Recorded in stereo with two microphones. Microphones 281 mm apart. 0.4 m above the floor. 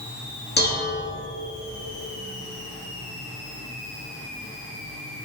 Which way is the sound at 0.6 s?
35° left (ahead or behind).